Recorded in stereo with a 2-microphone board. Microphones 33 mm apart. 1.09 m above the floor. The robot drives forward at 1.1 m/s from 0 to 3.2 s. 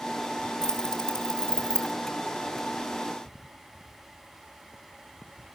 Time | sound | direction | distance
0.6 | keys jangling | 20° left (ahead or behind) | 4 m